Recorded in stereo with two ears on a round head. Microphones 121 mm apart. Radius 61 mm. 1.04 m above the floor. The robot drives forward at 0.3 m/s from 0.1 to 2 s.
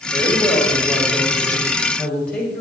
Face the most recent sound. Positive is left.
turn(degrees=10)  # may be behind; listen again after turning